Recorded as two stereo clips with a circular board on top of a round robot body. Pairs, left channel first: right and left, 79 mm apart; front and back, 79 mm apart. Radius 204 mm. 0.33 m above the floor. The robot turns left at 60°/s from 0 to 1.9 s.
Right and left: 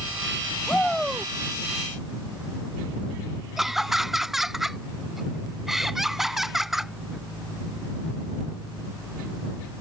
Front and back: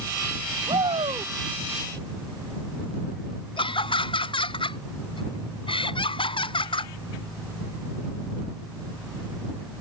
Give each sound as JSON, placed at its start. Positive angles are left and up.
{"t": 0.7, "sound": "a shout", "azimuth_deg": -160}
{"t": 3.6, "sound": "laughter", "azimuth_deg": 5}